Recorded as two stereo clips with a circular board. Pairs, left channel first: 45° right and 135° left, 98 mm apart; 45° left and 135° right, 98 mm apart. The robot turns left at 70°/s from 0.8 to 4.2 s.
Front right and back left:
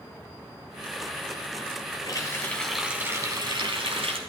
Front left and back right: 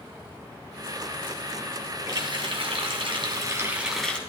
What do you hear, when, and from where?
2.1 s a running tap: 90° right, 2 m; by 4.2 s 120° left, 2 m